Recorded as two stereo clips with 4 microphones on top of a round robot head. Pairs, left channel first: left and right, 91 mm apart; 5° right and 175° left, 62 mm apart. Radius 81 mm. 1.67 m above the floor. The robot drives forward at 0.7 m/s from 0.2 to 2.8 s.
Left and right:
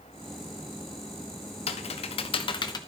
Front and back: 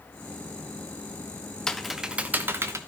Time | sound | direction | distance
1.7 | typing on a keyboard | 75° left | 0.7 m